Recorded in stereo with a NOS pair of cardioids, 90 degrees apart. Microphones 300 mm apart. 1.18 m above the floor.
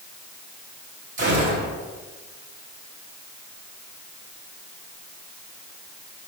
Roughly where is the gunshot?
Ahead right.